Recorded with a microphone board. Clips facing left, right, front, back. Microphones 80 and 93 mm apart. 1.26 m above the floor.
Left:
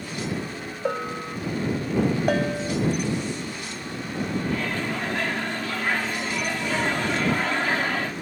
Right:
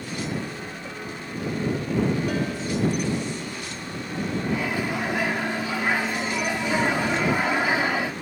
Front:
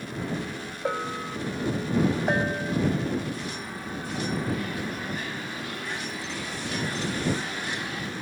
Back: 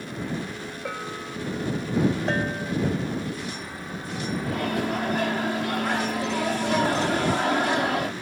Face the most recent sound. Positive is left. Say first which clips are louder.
# right 1 dB, back 4 dB
turn(degrees=-170)